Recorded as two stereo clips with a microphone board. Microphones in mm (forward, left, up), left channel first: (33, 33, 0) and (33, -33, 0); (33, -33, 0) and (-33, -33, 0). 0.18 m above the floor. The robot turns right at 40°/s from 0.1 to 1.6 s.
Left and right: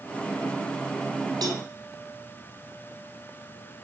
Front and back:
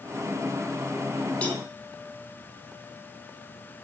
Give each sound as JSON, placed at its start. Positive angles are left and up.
{"t": 1.4, "sound": "a cowbell", "azimuth_deg": -70, "distance_m": 0.9}